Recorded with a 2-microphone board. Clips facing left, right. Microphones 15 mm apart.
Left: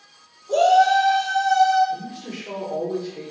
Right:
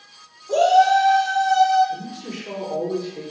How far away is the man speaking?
About 1.1 m.